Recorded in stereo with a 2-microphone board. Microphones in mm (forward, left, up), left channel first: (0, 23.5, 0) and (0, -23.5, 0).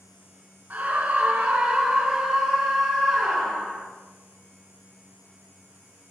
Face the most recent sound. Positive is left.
turn(degrees=20)  # may be behind; listen again after turning